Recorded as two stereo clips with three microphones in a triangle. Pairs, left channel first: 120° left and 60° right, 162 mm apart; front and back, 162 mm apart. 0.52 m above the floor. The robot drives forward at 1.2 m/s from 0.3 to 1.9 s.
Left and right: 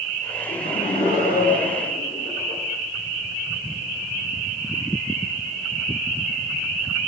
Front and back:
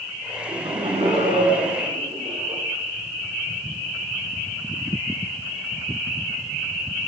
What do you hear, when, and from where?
0.5 s laughter: 130° left, 7.5 m; by 2.6 s 140° left, 8.5 m